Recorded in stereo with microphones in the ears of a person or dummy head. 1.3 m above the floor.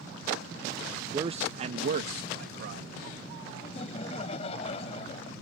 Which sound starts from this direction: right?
A man speaking, at 1.1 s.